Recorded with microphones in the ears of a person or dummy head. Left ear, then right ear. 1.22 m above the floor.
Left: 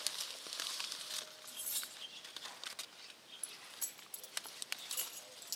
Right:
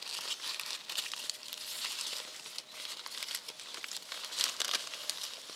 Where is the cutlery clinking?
15° left (ahead or behind), 5 m.